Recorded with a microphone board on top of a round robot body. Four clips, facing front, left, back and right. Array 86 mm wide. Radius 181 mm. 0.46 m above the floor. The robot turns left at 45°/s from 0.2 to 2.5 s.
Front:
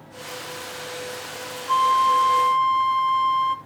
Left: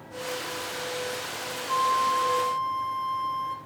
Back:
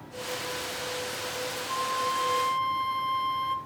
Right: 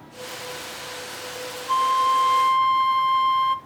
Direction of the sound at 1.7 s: 35° right.